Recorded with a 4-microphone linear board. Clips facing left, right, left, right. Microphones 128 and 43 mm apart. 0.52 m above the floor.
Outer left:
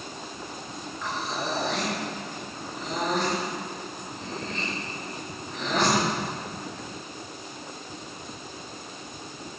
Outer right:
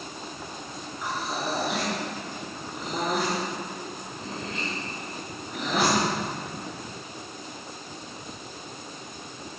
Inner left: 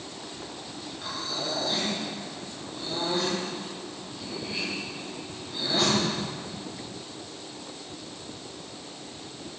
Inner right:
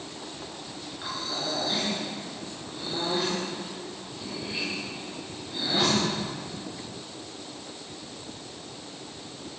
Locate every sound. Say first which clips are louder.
1.0 s breathing: outer right 1 dB, inner right 1 dB; 10° right (ahead or behind), 6.5 m